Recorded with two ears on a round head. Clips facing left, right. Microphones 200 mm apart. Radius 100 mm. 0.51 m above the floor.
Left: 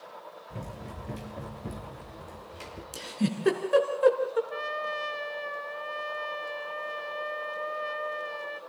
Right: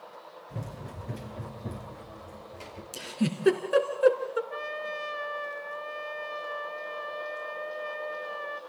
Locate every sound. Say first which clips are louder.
0.5 s running footsteps: right 1 dB; 10° right (ahead or behind), 5 m; by 2.8 s 20° left (ahead or behind), 7 m
2.9 s a giggle: even; 5° right (ahead or behind), 3 m
4.5 s a trumpet: left 1 dB; 5° left (ahead or behind), 1.0 m